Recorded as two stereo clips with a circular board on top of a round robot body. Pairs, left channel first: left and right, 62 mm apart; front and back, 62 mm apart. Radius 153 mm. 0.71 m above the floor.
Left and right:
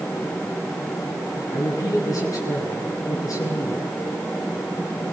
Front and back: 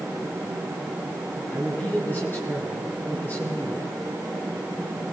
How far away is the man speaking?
About 8 m.